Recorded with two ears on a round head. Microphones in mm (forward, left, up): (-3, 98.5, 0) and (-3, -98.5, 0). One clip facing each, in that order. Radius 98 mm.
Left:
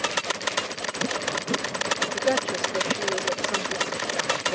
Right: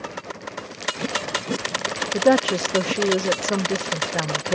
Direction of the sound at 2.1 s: 65° right (ahead or behind).